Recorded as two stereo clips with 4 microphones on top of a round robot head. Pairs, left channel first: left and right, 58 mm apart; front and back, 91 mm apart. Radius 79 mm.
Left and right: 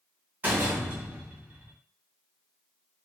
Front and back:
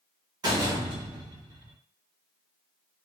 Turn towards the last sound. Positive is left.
turn(degrees=-145)